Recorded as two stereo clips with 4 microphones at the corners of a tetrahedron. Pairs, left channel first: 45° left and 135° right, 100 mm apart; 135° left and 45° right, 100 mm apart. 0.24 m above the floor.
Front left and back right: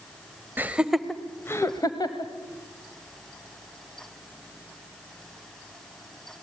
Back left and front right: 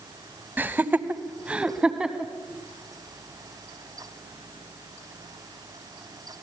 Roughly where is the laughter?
Right.